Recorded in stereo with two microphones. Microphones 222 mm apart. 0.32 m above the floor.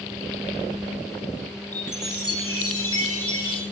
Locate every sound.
1.7 s a chime: 80° left, 5 m